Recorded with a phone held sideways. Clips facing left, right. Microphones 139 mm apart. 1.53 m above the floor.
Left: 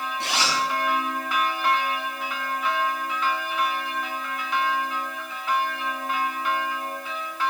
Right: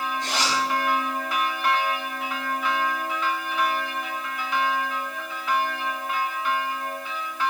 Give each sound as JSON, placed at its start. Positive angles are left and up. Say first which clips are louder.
{"t": 0.2, "sound": "a zipper", "louder": "left 2 dB", "side_deg": 80, "distance_m": 9.0}